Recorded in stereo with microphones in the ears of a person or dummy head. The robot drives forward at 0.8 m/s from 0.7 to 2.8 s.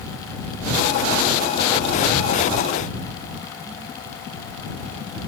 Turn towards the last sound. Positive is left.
No sound to turn to.